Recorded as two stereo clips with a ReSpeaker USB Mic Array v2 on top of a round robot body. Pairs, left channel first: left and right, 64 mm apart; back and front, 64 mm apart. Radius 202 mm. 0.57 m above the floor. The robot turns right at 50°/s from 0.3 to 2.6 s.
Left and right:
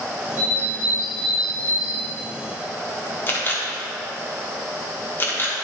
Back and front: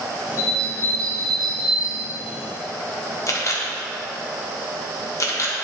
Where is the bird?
145° right, 2.5 m; by 2.1 s 60° right, 2.5 m.